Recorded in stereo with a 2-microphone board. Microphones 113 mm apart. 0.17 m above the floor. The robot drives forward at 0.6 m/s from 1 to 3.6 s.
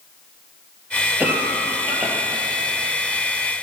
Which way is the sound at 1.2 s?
15° right (ahead or behind).